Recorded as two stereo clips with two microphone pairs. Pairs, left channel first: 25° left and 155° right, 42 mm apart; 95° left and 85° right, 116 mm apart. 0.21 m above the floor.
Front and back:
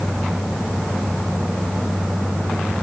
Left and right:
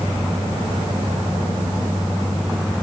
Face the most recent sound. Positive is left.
No sound to turn to.